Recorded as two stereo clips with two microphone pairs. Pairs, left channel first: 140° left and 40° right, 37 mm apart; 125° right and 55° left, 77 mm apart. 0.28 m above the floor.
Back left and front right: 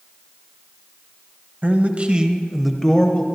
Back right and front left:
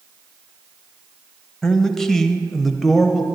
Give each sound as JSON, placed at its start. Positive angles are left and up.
{"t": 1.6, "sound": "a man speaking", "azimuth_deg": -45, "distance_m": 1.2}